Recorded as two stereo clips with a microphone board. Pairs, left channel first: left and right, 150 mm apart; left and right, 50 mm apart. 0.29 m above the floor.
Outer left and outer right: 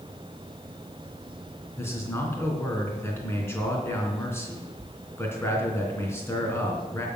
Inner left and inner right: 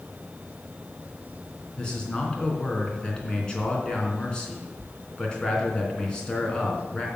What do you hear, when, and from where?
1.8 s a man speaking: 15° left (ahead or behind), 3 m